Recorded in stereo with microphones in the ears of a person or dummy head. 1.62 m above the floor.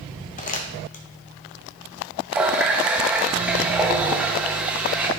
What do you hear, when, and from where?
0.4 s crumpling: 40° left (ahead or behind), 0.8 m
2.3 s a running tap: 10° right (ahead or behind), 1.1 m